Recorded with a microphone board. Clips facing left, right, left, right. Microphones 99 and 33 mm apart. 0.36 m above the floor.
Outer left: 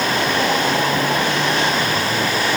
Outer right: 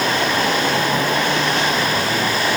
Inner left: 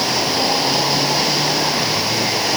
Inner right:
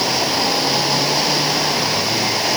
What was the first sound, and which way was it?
Only background noise.